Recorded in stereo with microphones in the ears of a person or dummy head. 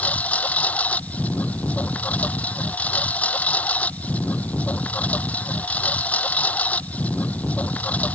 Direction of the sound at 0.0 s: 10° left (ahead or behind).